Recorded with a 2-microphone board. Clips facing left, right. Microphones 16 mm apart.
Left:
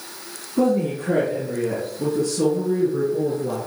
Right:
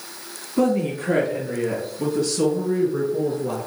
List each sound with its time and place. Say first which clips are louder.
0.6 s a woman speaking: left 1 dB; 60° right (ahead or behind), 2.5 m; by 3.7 s 50° right (ahead or behind), 2.5 m